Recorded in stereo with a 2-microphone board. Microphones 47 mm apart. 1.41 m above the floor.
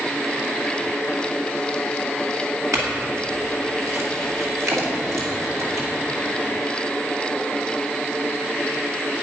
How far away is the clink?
About 2.5 m.